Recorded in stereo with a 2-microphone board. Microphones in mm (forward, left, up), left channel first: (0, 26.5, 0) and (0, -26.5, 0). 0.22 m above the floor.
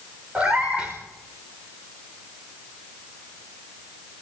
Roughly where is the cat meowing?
Right.